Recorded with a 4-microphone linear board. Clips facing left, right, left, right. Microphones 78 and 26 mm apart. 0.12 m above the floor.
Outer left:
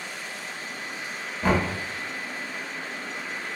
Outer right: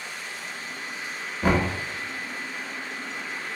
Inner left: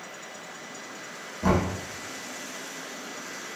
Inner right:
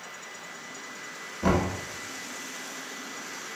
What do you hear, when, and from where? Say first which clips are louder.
1.4 s knocking: outer right 1 dB, inner left 1 dB; 10° right (ahead or behind), 0.7 m